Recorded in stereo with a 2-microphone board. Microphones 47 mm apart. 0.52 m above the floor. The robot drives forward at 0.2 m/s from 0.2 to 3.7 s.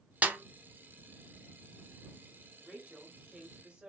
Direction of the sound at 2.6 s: 20° right (ahead or behind).